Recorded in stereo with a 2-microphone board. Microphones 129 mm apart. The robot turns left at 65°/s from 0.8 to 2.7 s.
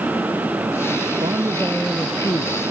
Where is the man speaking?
140° right; by 2.6 s 130° left.